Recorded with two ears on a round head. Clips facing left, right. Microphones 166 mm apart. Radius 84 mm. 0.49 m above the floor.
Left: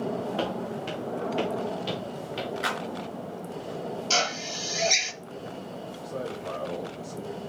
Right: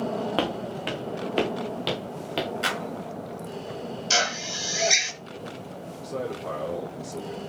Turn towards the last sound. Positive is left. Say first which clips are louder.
# right 3 dB
turn(degrees=-40)  # may be behind; listen again after turning